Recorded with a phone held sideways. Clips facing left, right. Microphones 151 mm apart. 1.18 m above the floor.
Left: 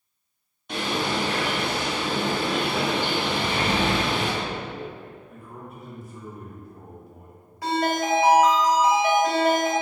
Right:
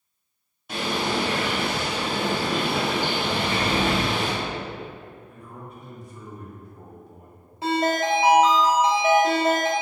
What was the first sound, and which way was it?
A bird, 5° right (ahead or behind).